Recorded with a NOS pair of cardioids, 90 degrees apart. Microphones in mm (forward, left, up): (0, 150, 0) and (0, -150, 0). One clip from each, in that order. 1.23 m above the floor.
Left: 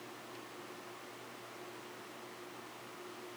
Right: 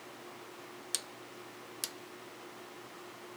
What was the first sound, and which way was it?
Only background noise.